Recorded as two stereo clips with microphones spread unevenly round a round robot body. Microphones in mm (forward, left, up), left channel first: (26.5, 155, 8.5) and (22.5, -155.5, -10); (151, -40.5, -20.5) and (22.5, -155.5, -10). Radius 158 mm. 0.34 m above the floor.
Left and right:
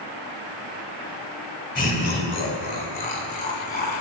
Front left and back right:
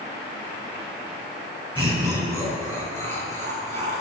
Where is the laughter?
150° left, 2.5 m; by 4.0 s 155° left, 4 m.